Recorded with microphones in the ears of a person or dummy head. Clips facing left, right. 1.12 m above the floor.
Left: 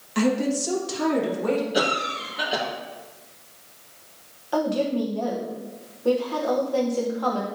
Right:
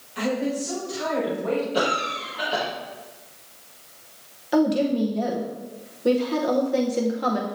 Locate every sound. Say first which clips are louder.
0.1 s a woman speaking: left 3 dB; 65° left (ahead or behind), 1.5 m; by 1.6 s 70° left (ahead or behind), 2.5 m
1.7 s a cough: even; 20° left (ahead or behind), 1.3 m
4.5 s a woman speaking: right 3 dB; 25° right (ahead or behind), 0.9 m